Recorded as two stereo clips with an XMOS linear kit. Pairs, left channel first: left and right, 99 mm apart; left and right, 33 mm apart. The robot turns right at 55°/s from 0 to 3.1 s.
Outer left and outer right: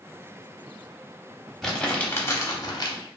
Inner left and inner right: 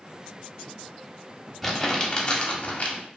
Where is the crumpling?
5° left, 0.7 m; by 3.0 s 80° left, 0.7 m.